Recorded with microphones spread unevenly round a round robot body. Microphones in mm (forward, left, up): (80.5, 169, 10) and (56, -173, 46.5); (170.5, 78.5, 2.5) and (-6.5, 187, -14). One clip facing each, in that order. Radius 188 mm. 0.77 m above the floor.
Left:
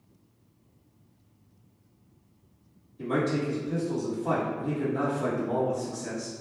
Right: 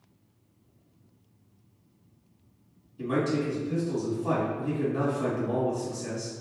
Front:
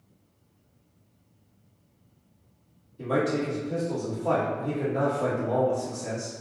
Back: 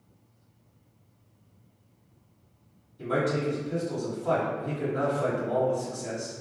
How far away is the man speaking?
About 1.6 m.